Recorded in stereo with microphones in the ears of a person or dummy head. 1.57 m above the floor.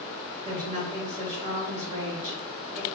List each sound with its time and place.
0.5 s a woman speaking: 40° right (ahead or behind), 3 m